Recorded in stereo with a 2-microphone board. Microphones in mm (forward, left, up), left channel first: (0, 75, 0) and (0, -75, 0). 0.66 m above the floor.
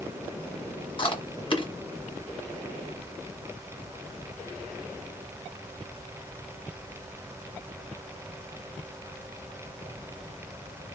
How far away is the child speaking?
I don't hear a child speaking.